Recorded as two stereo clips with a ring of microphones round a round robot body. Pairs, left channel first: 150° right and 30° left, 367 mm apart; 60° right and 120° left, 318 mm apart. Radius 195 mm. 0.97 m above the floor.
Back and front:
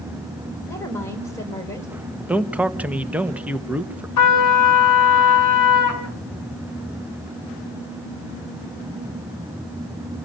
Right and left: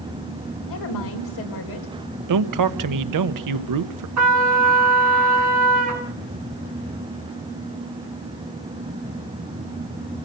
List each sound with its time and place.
0.7 s a woman speaking: 70° right, 4.5 m
2.3 s a man speaking: 115° left, 1.1 m
4.2 s a trumpet: 170° left, 3 m